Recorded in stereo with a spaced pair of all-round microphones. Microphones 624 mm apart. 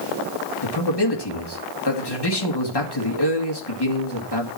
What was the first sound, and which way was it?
A man speaking, 40° left (ahead or behind).